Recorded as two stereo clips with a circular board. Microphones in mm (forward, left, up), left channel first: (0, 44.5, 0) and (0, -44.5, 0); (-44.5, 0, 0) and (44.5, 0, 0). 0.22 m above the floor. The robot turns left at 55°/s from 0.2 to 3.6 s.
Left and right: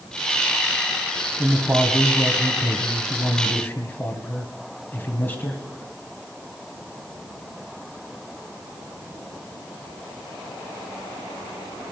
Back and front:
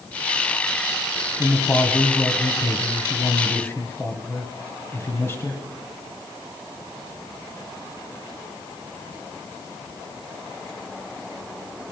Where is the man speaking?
95° right, 1.9 m; by 5.6 s 140° left, 1.9 m.